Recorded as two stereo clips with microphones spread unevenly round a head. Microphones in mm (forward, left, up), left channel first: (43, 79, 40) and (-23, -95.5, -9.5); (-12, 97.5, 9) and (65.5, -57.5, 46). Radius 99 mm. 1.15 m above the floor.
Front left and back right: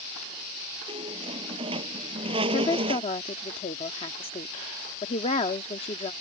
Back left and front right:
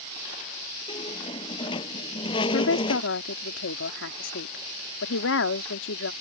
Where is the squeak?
175° right.